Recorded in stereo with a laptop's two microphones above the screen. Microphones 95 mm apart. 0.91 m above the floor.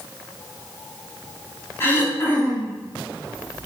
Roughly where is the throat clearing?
Left.